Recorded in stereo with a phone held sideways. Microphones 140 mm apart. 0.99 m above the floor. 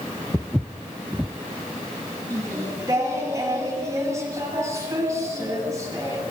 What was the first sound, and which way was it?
Footsteps, 10° right (ahead or behind).